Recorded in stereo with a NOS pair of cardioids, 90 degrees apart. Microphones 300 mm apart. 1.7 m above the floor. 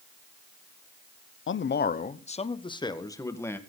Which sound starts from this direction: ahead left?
A man speaking, at 1.5 s.